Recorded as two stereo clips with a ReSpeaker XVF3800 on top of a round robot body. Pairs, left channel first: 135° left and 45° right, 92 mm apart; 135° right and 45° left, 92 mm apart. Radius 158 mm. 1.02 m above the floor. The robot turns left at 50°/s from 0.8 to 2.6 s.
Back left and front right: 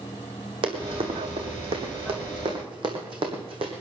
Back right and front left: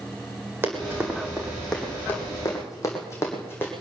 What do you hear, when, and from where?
0.6 s running footsteps: 20° right, 3 m; by 3.7 s 65° right, 3 m